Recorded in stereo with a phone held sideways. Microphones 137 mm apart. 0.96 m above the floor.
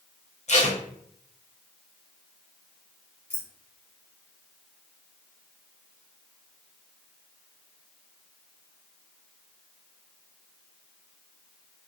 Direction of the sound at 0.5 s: 55° left (ahead or behind).